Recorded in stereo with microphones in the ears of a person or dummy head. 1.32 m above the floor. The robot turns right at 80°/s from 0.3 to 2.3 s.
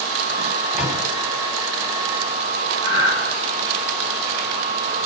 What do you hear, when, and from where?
0.7 s a microwave: centre (ahead or behind), 3 m; by 1.0 s 20° right (ahead or behind), 3 m
2.8 s breathing: 30° left (ahead or behind), 3.5 m